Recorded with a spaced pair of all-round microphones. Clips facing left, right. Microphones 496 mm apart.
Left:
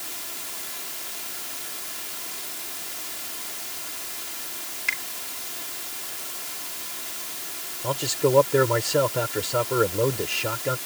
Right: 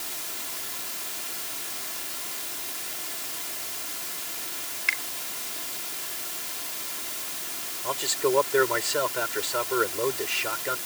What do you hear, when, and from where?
4.9 s a finger snap: 65° left (ahead or behind)
7.8 s a man speaking: 60° left (ahead or behind)